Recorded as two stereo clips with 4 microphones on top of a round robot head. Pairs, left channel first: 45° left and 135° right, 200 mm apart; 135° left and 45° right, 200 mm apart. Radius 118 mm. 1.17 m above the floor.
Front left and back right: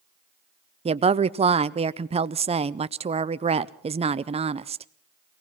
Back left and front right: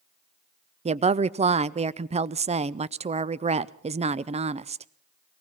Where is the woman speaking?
90° right, 0.5 m.